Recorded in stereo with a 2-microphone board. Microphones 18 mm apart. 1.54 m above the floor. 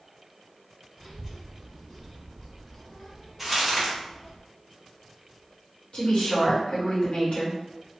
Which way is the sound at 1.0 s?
5° right (ahead or behind).